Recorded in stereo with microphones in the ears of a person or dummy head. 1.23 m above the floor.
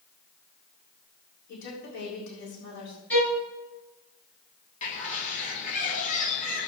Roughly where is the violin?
Centre.